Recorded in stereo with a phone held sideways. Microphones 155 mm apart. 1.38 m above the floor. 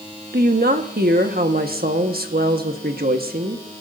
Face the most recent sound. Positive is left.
turn(degrees=-75)  # may be behind; listen again after turning